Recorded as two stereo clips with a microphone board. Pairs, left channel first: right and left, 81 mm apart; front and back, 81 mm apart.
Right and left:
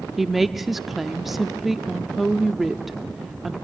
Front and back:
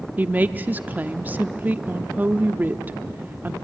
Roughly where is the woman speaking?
Behind.